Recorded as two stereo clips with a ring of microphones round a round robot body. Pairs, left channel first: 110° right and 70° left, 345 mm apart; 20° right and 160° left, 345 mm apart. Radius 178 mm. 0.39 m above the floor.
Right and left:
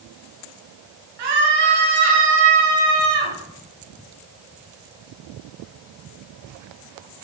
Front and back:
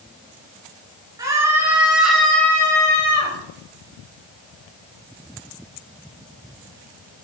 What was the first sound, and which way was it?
A scream, 75° left.